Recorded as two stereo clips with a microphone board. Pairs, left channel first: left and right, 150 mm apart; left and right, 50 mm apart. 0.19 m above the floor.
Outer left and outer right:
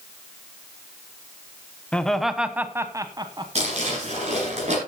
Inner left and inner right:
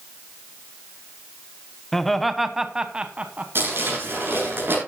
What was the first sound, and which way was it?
Laughter, 10° left (ahead or behind).